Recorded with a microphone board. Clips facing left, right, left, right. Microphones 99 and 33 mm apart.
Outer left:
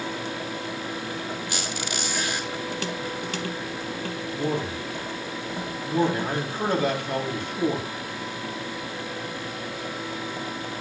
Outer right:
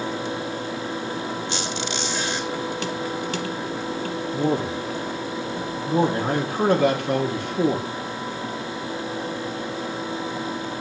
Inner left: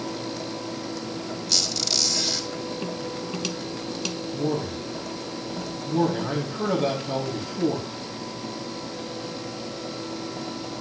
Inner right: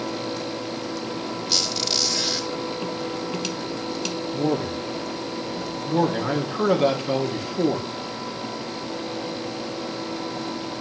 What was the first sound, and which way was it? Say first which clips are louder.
A squeak: outer right 4 dB, inner right 1 dB; 25° right (ahead or behind).